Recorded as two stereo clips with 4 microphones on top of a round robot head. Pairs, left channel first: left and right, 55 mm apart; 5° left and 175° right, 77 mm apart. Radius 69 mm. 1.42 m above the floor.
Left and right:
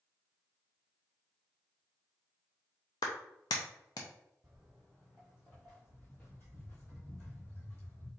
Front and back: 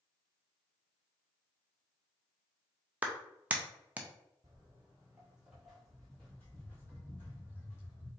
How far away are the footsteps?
About 1.5 m.